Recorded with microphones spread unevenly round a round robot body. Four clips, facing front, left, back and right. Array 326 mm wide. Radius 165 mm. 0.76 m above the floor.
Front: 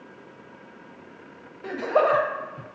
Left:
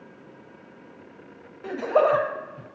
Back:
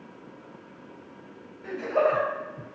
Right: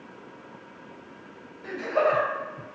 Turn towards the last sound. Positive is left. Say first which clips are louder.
# left 4 dB, front 3 dB
turn(degrees=60)